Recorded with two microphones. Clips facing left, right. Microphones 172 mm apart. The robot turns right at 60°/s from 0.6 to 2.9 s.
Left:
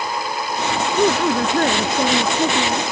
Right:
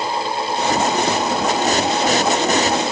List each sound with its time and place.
1.0 s a woman speaking: 65° left; by 2.8 s 175° left